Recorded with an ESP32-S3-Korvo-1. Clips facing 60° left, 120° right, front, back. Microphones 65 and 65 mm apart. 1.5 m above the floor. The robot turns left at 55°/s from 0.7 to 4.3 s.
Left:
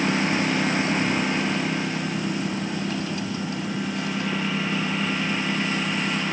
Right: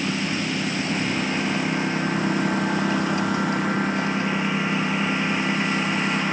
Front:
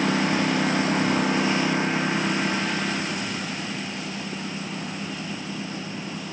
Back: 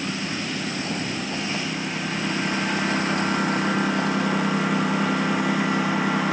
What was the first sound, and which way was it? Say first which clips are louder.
A lawn mower: left 3 dB, front 6 dB; 10° left.